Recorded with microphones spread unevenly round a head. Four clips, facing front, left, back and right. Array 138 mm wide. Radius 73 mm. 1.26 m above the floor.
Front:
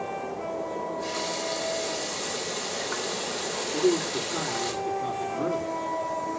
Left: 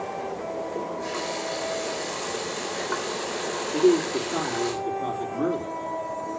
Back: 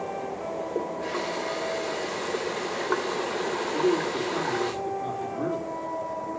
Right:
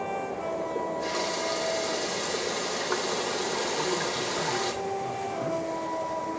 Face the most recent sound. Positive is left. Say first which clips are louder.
# left 9 dB, front 1 dB
turn(degrees=100)